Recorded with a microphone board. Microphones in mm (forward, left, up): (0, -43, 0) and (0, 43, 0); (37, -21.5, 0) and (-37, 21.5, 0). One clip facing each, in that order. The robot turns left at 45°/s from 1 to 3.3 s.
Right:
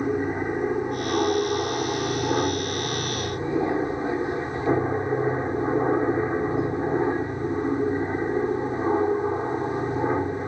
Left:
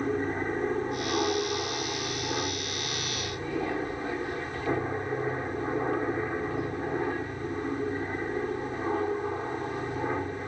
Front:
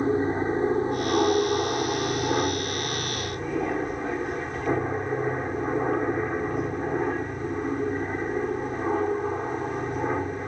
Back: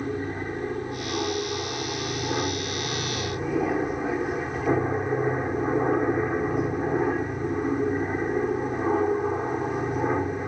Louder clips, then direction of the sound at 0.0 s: Right 4 dB, front 6 dB; 25° right.